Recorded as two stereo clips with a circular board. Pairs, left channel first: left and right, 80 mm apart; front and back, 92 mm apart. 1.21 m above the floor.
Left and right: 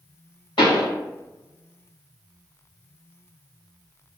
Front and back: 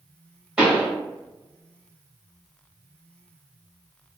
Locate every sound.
0.6 s a pop: 105° left, 1.3 m